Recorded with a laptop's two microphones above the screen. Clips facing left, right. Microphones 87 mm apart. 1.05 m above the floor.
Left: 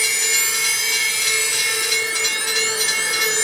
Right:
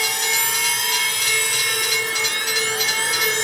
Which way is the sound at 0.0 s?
50° right (ahead or behind).